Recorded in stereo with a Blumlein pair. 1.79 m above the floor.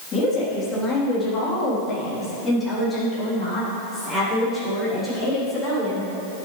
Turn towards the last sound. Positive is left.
turn(degrees=5)